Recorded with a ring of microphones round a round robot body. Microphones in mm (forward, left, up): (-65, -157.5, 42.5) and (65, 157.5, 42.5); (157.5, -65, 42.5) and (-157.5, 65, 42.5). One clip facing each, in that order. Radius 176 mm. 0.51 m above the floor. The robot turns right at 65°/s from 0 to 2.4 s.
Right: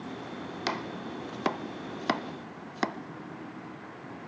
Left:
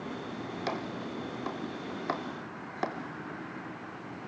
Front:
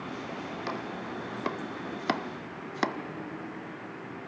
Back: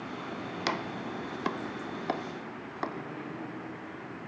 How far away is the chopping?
About 0.9 m.